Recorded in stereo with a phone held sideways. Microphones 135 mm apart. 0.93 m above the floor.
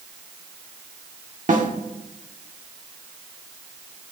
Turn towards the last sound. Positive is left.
turn(degrees=-75)  # may be behind; listen again after turning